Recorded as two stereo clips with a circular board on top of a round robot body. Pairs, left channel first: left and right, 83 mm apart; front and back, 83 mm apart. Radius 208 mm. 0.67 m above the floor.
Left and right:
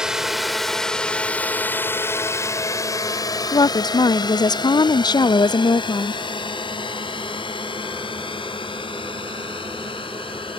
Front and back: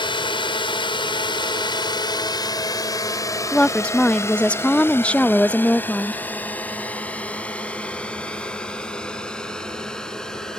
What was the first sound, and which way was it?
A drone, 10° right.